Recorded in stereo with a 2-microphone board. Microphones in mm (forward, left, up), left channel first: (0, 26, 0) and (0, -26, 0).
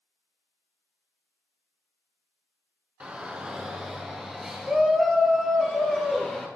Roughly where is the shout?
Right.